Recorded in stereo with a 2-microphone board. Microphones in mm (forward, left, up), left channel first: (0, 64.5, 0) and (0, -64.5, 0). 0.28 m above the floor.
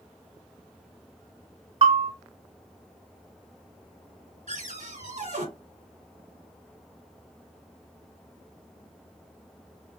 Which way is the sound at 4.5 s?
70° right (ahead or behind).